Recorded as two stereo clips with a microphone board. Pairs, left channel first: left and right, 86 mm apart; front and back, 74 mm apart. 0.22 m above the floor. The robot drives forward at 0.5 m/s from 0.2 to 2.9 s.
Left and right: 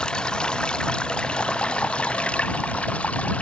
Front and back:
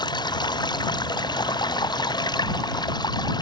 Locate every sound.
0.0 s running water: 10° left; by 3.4 s 15° left